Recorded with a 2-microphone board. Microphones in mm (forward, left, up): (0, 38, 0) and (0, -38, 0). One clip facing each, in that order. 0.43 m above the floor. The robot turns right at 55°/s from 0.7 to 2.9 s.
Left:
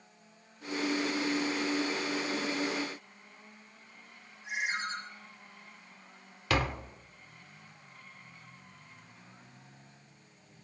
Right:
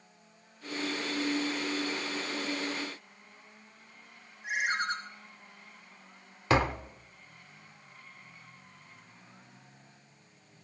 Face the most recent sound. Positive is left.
turn(degrees=-25)  # may be behind; listen again after turning